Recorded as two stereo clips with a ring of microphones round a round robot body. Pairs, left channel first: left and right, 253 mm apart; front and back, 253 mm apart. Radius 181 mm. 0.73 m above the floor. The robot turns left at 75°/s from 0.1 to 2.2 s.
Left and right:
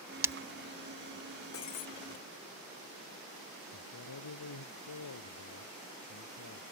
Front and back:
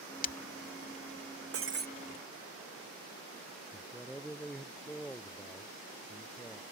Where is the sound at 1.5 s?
150° left; by 1.9 s 125° left.